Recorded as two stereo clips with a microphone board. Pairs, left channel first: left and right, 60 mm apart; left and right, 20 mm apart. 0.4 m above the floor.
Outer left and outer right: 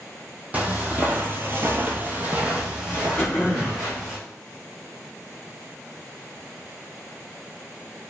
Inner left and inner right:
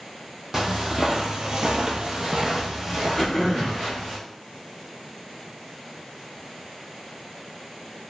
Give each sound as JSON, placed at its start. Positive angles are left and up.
{"t": 0.5, "sound": "footsteps", "side_deg": -25, "distance_m": 0.7}
{"t": 3.2, "sound": "throat clearing", "side_deg": 35, "distance_m": 0.8}